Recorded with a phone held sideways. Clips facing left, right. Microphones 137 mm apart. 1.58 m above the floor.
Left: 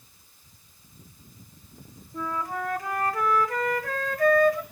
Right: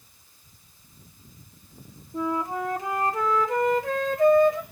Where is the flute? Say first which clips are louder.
Right 4 dB; 20° right (ahead or behind), 1.2 m.